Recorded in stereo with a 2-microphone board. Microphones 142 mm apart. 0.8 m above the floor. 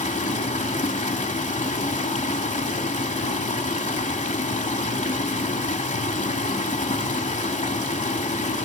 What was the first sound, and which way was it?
Running water, 60° left (ahead or behind).